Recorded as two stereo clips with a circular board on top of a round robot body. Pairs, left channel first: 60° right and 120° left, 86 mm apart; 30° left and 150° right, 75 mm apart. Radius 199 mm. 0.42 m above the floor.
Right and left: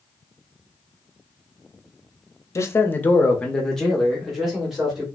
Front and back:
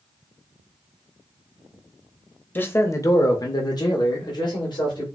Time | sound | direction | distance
2.5 | a man speaking | 25° right | 0.9 m